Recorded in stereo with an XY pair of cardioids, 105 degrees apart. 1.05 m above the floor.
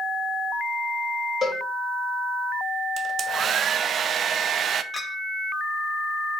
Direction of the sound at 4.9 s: 25° left.